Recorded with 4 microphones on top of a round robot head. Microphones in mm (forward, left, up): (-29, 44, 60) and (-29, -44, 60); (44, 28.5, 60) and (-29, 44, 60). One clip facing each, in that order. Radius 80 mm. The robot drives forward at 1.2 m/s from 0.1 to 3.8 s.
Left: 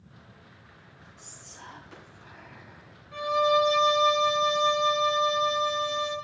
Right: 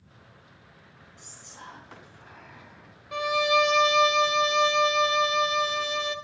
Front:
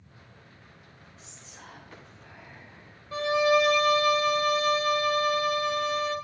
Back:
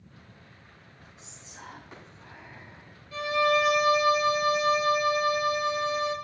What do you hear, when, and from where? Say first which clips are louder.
1.2 s whispering: right 2 dB, back 3 dB; 115° right, 7.5 m; by 2.9 s 130° right, 8.5 m
3.1 s a violin: left 1 dB, front 2 dB; 65° right, 1.1 m; by 6.2 s 115° right, 1.1 m